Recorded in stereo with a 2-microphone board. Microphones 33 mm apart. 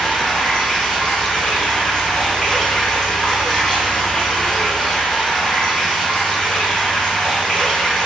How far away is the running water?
About 0.8 m.